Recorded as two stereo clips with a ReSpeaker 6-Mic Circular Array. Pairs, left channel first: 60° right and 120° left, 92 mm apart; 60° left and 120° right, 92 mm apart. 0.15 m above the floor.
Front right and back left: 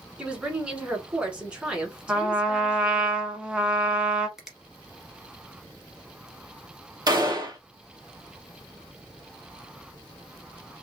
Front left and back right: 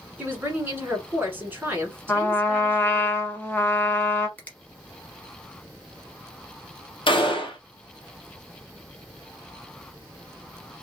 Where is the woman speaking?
170° right, 1.4 m.